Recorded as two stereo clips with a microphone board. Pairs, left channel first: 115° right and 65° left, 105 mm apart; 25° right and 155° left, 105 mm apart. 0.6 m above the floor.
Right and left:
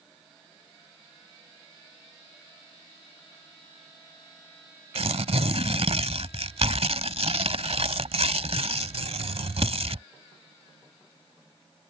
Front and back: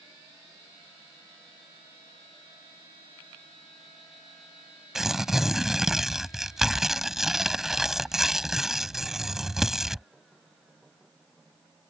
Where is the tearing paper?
70° left.